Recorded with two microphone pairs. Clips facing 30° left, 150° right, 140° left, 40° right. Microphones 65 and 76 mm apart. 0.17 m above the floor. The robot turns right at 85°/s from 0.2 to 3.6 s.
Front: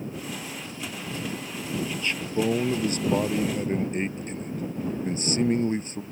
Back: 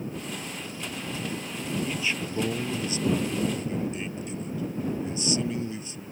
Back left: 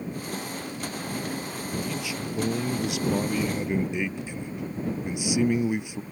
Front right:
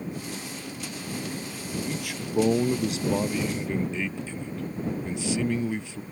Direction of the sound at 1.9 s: 85° right.